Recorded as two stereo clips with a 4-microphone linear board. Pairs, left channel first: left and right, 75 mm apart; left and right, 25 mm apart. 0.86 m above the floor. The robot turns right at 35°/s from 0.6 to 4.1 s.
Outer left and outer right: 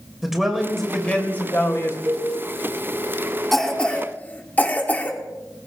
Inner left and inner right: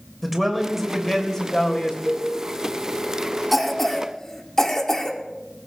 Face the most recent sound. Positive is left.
turn(degrees=25)  # may be behind; listen again after turning